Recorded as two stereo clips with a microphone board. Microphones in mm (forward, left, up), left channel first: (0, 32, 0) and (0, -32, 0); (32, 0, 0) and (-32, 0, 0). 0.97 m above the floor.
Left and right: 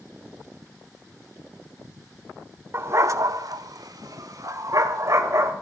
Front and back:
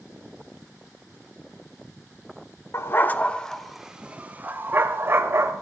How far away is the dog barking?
About 1.0 m.